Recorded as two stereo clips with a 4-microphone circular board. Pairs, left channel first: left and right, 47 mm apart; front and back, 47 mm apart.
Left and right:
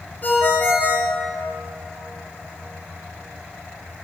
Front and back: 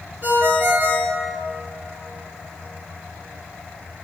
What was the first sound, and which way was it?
A ringtone, 135° left.